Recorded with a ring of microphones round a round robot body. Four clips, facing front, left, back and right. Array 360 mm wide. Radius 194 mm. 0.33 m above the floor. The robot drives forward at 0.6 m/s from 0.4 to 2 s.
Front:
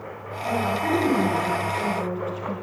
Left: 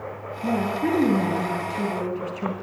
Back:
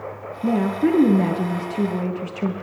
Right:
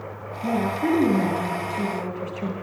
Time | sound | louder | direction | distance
0.4 | a woman speaking | right 1 dB, back 5 dB | straight behind | 6.5 m